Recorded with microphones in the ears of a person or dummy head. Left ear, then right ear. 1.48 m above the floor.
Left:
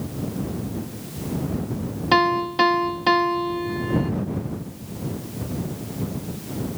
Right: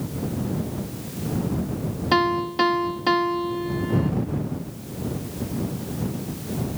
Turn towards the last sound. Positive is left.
turn(degrees=20)  # may be behind; listen again after turning